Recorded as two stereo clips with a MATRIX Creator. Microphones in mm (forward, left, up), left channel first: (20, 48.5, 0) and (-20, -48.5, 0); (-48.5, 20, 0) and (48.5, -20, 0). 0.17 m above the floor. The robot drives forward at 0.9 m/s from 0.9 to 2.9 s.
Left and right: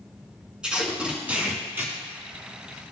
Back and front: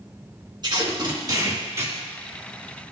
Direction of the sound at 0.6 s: 35° right.